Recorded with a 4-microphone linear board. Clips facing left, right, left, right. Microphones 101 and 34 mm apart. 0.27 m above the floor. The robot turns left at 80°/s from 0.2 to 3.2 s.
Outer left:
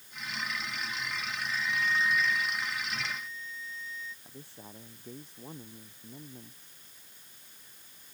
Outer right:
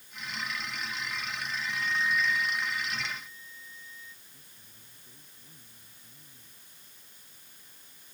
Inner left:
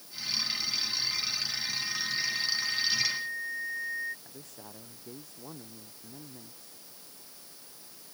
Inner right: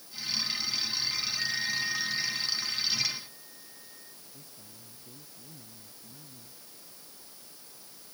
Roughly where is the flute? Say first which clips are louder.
Outer left 4 dB, inner right 3 dB; behind right.